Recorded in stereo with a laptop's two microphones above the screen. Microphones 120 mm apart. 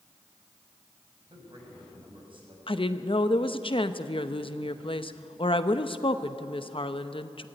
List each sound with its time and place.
1.3 s a man speaking: 50° right (ahead or behind), 7 m
2.7 s a woman speaking: 50° left (ahead or behind), 0.8 m